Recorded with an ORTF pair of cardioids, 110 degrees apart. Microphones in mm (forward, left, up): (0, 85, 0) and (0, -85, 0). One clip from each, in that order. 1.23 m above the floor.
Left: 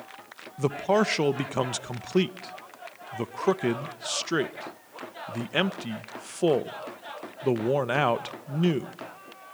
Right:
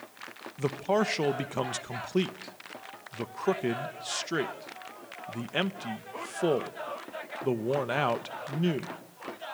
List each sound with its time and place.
0.6 s a man speaking: 20° left, 1.0 m